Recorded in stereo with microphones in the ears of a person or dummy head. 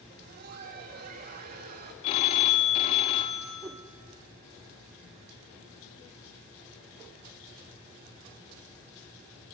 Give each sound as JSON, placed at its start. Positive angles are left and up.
{"t": 0.1, "sound": "laughter", "side_deg": -50, "distance_m": 2.0}
{"t": 2.0, "sound": "a phone ringing", "side_deg": 30, "distance_m": 0.9}
{"t": 3.6, "sound": "a whoosh", "side_deg": -10, "distance_m": 0.8}